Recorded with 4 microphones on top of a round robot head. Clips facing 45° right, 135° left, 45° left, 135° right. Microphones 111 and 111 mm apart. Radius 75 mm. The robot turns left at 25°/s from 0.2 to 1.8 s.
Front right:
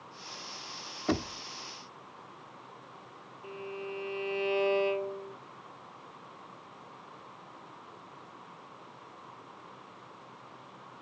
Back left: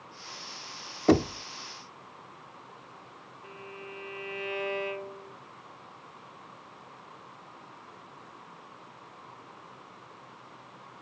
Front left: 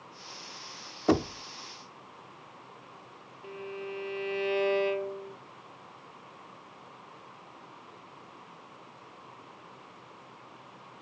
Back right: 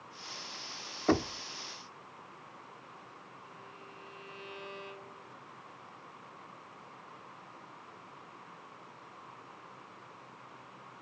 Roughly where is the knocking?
Behind left.